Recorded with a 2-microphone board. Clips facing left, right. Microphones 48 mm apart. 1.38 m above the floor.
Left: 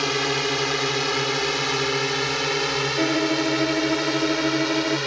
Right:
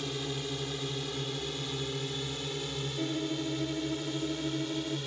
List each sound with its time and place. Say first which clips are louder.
0.0 s a drone: left 13 dB; 75° left (ahead or behind); by 5.1 s 80° left
3.0 s a violin: left 11 dB; 90° left